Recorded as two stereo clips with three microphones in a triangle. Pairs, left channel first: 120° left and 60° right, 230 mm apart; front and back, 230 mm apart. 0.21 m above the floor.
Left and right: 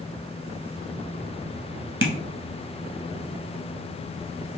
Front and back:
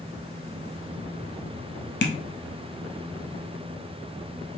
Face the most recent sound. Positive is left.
turn(degrees=-35)